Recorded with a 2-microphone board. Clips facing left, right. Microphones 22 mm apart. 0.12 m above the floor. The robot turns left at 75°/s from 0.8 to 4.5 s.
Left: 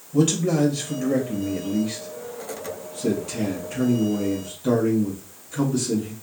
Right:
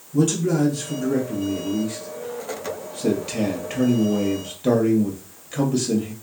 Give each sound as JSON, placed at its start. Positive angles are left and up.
{"t": 0.1, "sound": "a man speaking", "azimuth_deg": 160, "distance_m": 2.5}